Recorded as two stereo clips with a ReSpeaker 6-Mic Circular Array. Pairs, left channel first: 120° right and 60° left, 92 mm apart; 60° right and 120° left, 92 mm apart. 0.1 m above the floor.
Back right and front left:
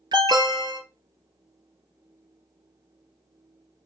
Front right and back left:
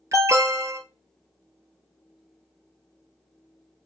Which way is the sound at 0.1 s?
75° left.